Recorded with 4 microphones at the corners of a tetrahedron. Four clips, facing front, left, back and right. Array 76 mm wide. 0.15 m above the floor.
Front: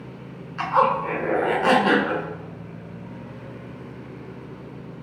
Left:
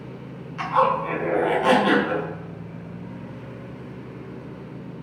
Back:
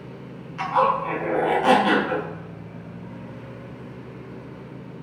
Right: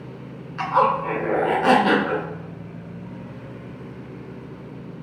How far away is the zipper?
About 0.5 m.